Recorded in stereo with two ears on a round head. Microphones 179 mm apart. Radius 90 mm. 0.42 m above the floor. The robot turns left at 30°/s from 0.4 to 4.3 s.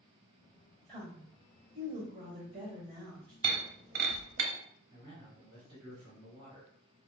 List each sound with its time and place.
0.9 s a woman speaking: 55° right, 1.5 m; by 3.3 s 130° right, 1.5 m
3.4 s breaking glass: 25° right (ahead or behind), 0.5 m; by 4.5 s 50° right (ahead or behind), 0.5 m
4.9 s a man speaking: centre (ahead or behind), 1.2 m